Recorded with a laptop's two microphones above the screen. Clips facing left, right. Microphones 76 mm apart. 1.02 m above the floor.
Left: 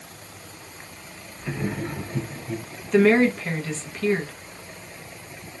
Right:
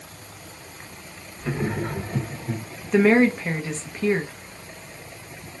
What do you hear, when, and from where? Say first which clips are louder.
1.4 s laughter: right 2 dB; 75° right (ahead or behind), 2 m; by 2.6 s 55° right (ahead or behind), 2.5 m
2.9 s a woman speaking: even; 15° right (ahead or behind), 1.0 m